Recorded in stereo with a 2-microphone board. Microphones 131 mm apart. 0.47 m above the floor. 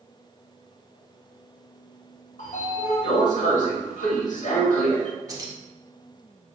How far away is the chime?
I don't hear a chime.